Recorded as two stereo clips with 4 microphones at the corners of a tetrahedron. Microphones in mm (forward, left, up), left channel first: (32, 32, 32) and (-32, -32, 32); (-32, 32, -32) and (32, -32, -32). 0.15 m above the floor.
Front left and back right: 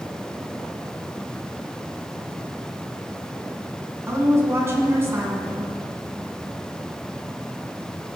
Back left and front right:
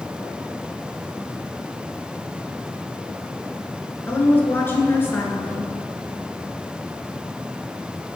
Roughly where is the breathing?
No breathing in this recording.